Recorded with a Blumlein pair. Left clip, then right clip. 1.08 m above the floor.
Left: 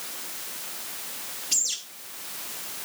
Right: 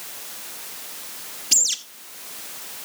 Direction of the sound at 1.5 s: 65° right.